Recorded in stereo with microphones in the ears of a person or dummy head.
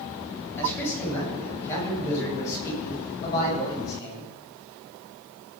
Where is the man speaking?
10° left (ahead or behind), 9 m; by 4.3 s 25° left (ahead or behind), 12 m.